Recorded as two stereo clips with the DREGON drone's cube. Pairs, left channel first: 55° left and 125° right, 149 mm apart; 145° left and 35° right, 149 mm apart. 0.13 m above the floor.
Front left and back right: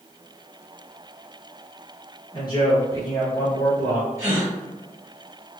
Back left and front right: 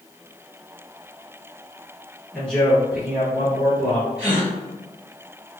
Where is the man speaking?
75° left, 1.3 m; by 4.1 s 20° right, 1.4 m.